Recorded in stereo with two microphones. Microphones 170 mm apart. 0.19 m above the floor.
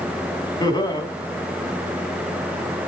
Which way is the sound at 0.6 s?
25° left (ahead or behind).